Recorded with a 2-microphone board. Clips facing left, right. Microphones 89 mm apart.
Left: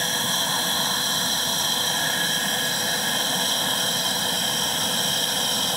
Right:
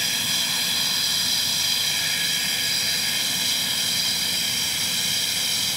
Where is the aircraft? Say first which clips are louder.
Left 5 dB; 35° left (ahead or behind); by 5.8 s 45° left (ahead or behind).